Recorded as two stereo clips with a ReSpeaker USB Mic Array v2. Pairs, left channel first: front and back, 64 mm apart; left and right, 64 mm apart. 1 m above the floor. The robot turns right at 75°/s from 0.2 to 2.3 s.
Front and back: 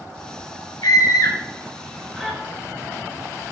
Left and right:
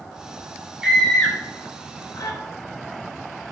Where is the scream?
10° right, 1.3 m; by 2.4 s 100° left, 1.3 m.